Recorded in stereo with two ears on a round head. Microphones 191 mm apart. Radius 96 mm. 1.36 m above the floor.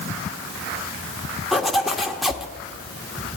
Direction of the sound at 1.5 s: Centre (ahead or behind).